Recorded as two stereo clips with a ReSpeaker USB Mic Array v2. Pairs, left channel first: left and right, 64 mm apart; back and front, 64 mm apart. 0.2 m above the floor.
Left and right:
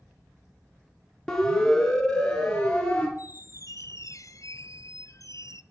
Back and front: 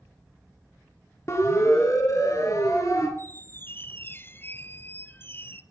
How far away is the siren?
About 2.5 m.